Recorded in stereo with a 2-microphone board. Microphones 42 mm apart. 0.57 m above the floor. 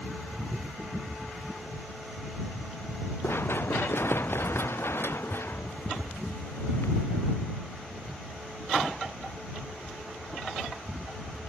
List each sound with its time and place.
3.2 s running footsteps: 65° left (ahead or behind); by 7.0 s 70° left (ahead or behind)